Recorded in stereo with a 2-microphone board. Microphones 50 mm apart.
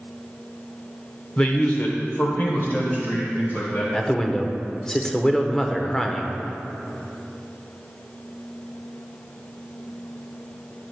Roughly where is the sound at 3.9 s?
Centre.